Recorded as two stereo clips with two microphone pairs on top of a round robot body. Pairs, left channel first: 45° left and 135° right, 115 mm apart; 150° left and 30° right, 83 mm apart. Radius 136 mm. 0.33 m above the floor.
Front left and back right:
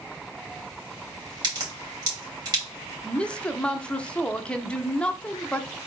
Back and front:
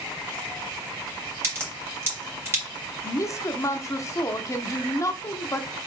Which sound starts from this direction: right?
A crack, at 1.4 s.